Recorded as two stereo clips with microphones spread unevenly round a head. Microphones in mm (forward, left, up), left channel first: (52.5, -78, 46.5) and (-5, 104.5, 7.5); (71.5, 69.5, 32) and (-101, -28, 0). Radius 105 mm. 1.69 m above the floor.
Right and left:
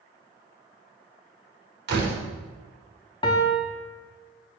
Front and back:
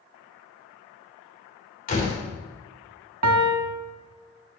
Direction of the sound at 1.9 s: 75° left.